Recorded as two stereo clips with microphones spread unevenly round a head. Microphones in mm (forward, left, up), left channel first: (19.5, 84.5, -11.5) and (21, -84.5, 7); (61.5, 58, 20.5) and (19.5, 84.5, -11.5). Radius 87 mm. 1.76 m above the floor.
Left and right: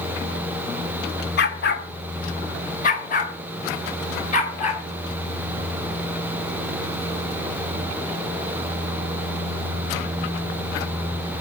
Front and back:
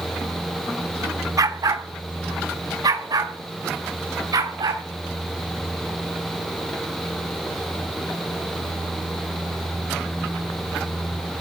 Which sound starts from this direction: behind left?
A dog barking, at 1.4 s.